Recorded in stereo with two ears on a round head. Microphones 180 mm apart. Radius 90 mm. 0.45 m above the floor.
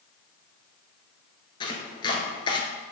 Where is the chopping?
25° left (ahead or behind), 1.0 m.